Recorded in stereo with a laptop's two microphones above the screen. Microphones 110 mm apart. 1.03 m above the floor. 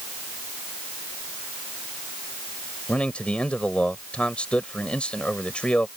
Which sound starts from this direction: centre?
A man speaking, at 2.9 s.